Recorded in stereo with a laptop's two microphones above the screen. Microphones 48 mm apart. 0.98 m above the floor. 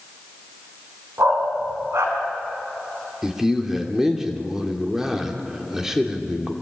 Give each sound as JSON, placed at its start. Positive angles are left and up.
{"t": 1.2, "sound": "a dog barking", "side_deg": -65, "distance_m": 3.5}
{"t": 3.2, "sound": "a man speaking", "side_deg": -10, "distance_m": 2.5}